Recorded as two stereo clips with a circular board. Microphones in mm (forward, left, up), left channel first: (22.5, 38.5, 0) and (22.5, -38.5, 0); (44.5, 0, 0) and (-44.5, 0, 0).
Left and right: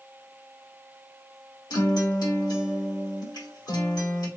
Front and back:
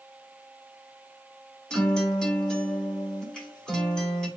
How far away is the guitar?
About 1.6 m.